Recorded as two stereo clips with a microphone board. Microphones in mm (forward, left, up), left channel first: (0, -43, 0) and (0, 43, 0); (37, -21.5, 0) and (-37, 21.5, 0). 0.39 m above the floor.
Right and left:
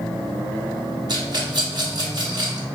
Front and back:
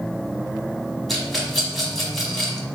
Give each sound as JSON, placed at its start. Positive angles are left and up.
{"t": 1.1, "sound": "a rattle", "azimuth_deg": 55, "distance_m": 1.0}